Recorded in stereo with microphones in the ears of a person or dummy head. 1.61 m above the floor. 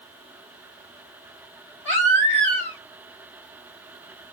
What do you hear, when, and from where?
1.9 s a baby crying: 5° left (ahead or behind), 1.3 m